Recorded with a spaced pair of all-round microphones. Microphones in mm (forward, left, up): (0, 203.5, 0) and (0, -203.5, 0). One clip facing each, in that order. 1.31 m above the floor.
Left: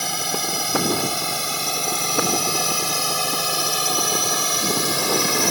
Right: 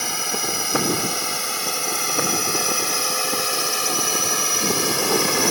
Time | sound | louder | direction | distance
0.0 | a drone | even | 50° left (ahead or behind) | ?